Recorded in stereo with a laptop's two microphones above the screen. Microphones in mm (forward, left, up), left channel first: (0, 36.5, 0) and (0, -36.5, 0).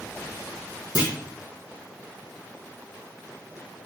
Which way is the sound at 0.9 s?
60° left (ahead or behind).